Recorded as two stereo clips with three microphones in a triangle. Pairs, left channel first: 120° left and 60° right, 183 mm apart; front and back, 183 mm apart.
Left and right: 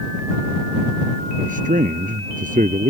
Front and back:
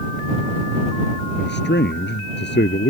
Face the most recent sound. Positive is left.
turn(degrees=-15)